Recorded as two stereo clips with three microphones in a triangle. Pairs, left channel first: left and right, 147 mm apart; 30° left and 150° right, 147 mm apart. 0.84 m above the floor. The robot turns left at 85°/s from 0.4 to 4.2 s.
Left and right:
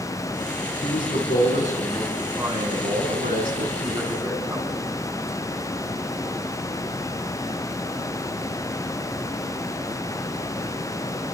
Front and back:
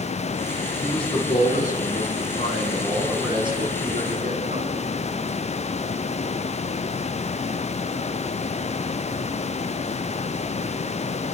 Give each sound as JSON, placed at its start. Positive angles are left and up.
{"t": 0.8, "sound": "a man speaking", "azimuth_deg": 130, "distance_m": 7.0}